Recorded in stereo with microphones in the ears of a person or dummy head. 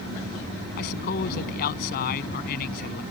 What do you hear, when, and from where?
0.8 s a man speaking: 50° left (ahead or behind)